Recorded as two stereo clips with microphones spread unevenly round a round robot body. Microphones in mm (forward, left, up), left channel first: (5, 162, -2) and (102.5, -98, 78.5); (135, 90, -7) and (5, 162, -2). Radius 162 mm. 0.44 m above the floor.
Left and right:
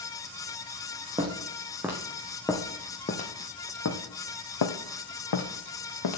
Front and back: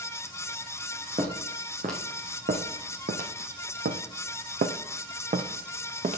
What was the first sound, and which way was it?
Footsteps, 140° right.